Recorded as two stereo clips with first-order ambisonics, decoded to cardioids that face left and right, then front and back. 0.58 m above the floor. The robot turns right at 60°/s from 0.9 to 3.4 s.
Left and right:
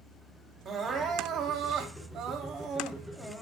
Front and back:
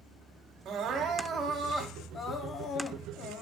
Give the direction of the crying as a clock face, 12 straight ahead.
5 o'clock.